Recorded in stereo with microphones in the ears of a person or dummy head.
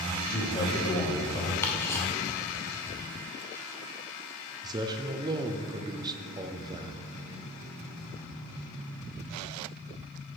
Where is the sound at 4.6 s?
20° right (ahead or behind), 0.6 m.